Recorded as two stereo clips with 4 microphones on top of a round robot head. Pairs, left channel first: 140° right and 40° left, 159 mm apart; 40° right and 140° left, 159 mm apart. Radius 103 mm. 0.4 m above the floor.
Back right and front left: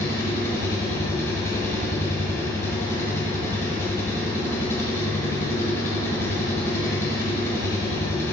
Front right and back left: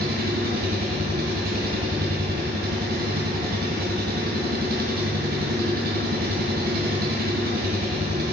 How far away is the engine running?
About 1.4 m.